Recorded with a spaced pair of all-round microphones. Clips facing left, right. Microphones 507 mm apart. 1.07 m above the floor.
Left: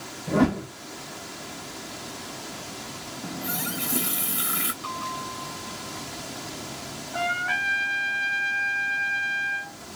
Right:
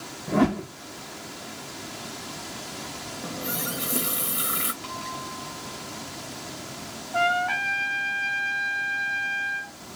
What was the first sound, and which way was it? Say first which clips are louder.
A whoosh: even; 60° left (ahead or behind).